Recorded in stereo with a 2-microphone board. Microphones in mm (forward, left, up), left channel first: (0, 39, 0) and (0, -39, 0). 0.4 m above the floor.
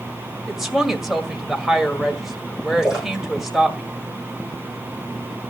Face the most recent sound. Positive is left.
turn(degrees=-10)  # may be behind; listen again after turning